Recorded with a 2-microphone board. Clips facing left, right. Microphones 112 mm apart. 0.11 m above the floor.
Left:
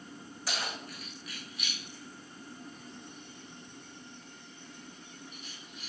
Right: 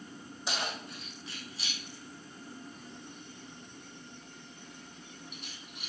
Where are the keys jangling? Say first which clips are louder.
Right 1 dB; 20° right (ahead or behind), 4.5 m; by 5.9 s 65° right (ahead or behind), 3 m.